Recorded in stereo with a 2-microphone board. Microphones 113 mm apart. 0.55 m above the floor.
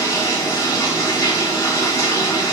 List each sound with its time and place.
0.0 s running water: 30° left (ahead or behind), 1.3 m